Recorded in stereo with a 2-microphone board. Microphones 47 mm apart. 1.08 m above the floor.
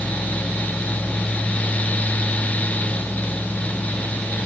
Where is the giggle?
I don't hear a giggle.